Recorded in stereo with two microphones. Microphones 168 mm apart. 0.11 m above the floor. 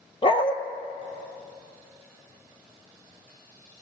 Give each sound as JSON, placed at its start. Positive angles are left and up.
{"t": 0.2, "sound": "a dog barking", "side_deg": 35, "distance_m": 0.9}